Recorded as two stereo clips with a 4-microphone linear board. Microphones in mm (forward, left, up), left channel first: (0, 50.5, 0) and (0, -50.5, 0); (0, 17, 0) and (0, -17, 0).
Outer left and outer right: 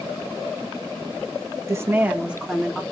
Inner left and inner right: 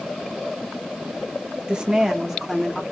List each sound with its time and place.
1.7 s a woman speaking: 30° right (ahead or behind), 1.2 m; by 2.8 s centre (ahead or behind), 1.8 m